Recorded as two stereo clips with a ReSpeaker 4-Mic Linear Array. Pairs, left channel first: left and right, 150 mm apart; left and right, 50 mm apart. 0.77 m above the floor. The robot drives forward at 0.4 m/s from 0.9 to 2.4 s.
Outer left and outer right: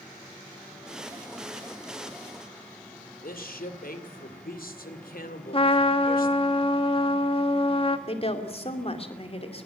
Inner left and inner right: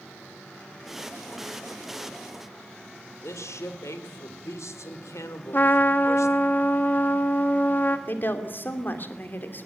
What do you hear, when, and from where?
3.2 s a man speaking: 75° left (ahead or behind), 2 m
5.5 s a trumpet: 35° left (ahead or behind), 1.4 m
8.1 s a woman speaking: 40° left (ahead or behind), 2.5 m